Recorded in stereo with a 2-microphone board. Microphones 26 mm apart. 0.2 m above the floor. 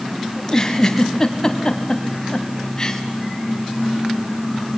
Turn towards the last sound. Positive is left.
turn(degrees=20)  # may be behind; listen again after turning